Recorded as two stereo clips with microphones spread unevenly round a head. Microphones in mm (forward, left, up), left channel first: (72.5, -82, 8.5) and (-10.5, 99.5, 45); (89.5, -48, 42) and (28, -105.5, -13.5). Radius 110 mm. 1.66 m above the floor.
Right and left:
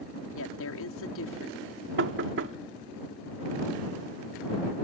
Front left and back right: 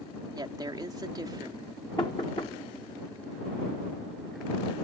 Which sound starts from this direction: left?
Knocking, at 2.0 s.